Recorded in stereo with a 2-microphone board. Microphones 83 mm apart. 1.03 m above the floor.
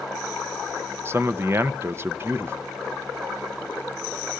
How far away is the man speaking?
About 0.5 m.